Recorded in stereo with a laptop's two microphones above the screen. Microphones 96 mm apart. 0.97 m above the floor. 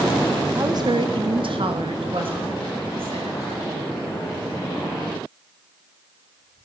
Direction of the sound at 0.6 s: 35° right (ahead or behind).